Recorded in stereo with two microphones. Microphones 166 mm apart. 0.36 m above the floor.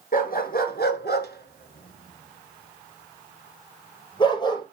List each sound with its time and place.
0.1 s a dog barking: 60° left (ahead or behind), 1.6 m; by 4.6 s 25° left (ahead or behind), 2.5 m